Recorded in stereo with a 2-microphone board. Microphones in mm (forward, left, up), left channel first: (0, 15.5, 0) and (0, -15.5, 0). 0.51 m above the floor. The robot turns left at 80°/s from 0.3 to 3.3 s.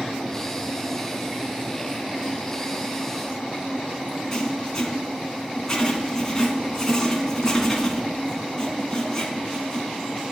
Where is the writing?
20° left (ahead or behind), 2.0 m.